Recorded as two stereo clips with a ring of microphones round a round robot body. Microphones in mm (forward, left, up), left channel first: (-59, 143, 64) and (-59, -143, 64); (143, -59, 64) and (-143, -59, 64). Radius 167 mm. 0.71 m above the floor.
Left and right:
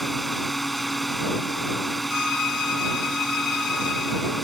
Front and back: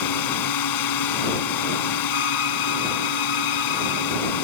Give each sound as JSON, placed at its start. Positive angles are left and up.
{"t": 0.0, "sound": "a drone", "azimuth_deg": 0}
{"t": 2.1, "sound": "a violin", "azimuth_deg": 50}